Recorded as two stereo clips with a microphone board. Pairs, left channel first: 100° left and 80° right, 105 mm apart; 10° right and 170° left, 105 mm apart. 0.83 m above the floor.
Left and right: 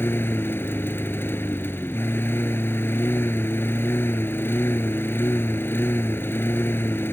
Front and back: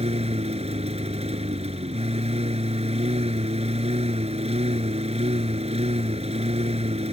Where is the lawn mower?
170° left.